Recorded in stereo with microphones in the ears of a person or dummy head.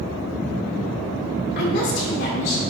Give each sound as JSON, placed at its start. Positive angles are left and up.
{"t": 1.6, "sound": "a woman speaking", "side_deg": 60, "distance_m": 1.6}